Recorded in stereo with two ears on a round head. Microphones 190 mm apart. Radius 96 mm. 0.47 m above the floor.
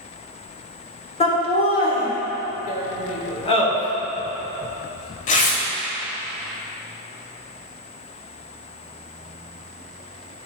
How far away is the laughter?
About 1.6 m.